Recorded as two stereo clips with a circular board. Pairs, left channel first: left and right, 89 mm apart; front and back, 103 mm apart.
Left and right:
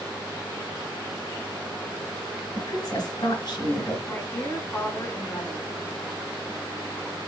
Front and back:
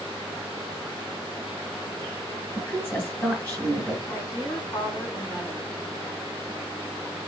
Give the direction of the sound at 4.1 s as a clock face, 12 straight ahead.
11 o'clock.